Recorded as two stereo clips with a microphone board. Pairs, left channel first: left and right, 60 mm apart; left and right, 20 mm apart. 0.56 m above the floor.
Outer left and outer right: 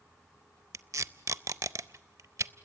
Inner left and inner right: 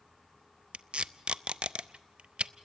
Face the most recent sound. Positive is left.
turn(degrees=-60)  # may be behind; listen again after turning